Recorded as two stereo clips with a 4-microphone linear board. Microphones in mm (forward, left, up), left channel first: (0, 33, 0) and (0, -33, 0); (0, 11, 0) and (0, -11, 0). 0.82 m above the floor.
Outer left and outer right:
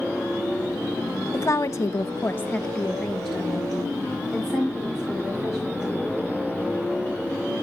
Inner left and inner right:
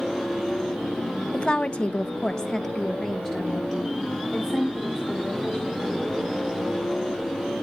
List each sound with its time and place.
1.3 s a woman speaking: 45° left (ahead or behind), 0.6 m; by 6.2 s 10° right (ahead or behind), 3 m